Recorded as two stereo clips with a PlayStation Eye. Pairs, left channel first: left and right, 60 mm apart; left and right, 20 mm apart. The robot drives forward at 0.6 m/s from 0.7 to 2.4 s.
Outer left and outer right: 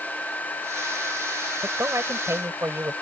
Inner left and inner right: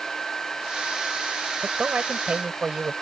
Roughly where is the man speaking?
Right.